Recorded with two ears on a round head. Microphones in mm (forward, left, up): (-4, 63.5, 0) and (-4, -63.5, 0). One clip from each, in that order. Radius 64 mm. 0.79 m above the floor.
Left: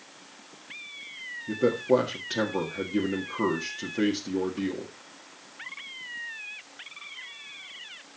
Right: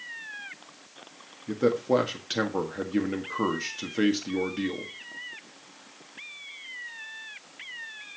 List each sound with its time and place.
1.5 s a man speaking: 50° right (ahead or behind), 1.6 m